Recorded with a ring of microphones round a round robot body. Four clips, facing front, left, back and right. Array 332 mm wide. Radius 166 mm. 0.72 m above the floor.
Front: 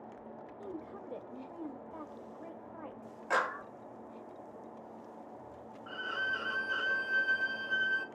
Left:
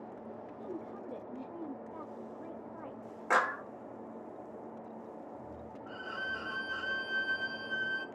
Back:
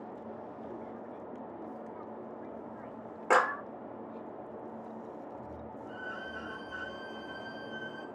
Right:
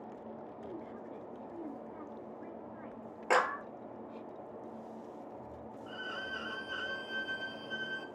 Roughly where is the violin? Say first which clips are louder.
Left 2 dB, front 7 dB; ahead.